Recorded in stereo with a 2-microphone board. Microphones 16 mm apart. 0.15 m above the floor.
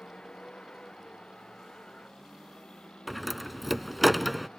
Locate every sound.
0.0 s a vehicle: 85° left; by 4.6 s 80° left
3.1 s a door slam: centre (ahead or behind)